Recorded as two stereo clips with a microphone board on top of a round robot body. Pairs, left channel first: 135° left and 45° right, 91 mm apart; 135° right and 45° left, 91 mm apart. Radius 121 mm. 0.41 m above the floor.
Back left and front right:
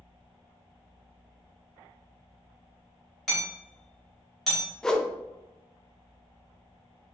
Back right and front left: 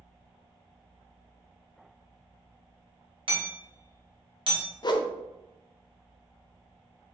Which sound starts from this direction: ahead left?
Hammering, at 3.3 s.